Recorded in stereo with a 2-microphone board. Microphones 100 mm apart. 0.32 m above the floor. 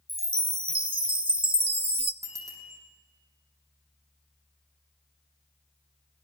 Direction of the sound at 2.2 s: 30° right (ahead or behind).